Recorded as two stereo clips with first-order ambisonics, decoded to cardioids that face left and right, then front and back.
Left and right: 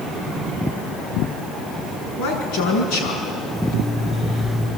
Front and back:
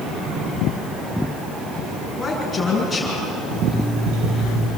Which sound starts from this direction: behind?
An alarm clock, at 3.5 s.